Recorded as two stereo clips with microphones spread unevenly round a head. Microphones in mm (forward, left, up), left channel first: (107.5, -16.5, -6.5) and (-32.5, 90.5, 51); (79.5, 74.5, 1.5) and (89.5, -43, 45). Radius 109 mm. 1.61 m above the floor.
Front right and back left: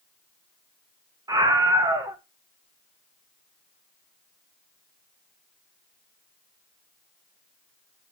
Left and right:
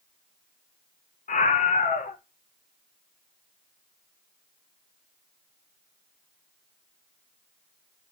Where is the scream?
80° left, 1.2 m.